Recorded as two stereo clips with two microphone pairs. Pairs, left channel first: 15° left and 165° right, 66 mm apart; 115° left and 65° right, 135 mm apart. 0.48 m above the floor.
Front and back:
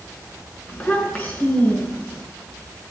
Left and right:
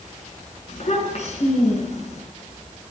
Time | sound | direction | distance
0.7 | a child speaking | 80° left | 4 m